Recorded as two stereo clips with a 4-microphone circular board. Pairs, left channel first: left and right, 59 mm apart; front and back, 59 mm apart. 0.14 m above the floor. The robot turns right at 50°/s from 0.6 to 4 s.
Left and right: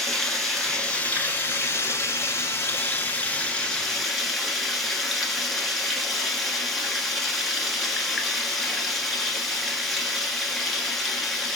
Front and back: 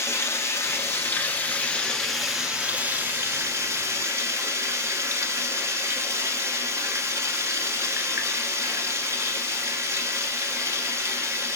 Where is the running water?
10° left, 1.0 m; by 11.6 s straight behind, 1.0 m.